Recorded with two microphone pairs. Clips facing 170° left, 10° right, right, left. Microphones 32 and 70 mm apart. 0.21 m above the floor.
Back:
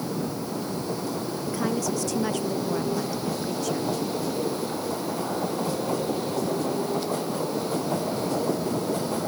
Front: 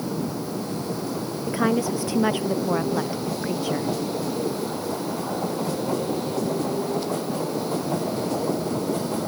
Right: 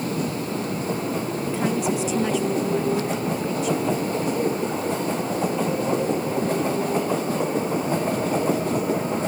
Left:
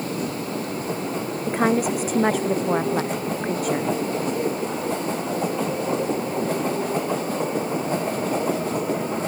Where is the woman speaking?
55° left.